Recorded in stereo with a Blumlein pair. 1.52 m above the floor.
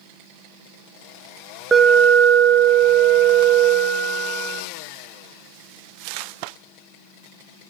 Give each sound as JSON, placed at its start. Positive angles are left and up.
{"t": 1.7, "sound": "an alarm", "azimuth_deg": -10, "distance_m": 1.3}